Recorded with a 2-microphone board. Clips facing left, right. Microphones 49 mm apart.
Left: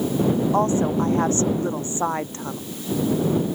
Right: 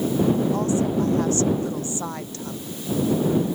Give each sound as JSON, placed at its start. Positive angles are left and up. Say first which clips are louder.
{"t": 0.5, "sound": "a woman speaking", "louder": "left 2 dB", "side_deg": 40}